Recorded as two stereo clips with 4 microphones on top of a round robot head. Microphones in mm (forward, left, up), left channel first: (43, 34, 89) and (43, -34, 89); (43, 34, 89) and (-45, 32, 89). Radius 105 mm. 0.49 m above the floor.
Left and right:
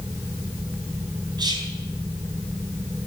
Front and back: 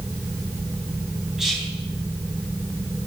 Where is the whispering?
95° right, 4 m.